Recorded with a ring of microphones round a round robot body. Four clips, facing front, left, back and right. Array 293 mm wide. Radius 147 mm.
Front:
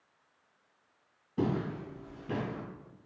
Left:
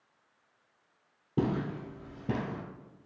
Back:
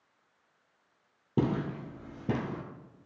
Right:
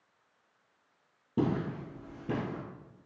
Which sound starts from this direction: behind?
Footsteps, at 1.4 s.